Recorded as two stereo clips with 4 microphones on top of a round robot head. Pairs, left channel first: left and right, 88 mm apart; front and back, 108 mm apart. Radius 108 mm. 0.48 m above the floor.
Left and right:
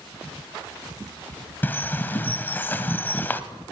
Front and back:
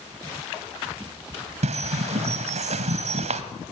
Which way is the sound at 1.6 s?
160° left.